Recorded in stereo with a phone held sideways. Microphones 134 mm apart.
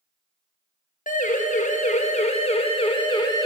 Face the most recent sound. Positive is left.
turn(degrees=25)  # may be behind; listen again after turning